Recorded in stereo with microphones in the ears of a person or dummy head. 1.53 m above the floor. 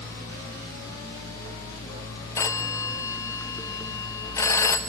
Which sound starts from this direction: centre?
A phone ringing, at 2.4 s.